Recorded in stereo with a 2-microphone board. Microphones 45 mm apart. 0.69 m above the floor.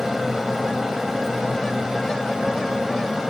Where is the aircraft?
10° right (ahead or behind).